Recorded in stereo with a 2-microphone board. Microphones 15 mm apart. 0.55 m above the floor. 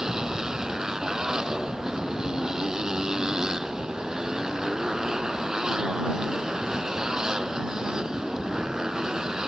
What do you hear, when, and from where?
0.0 s a motorcycle: 45° right (ahead or behind)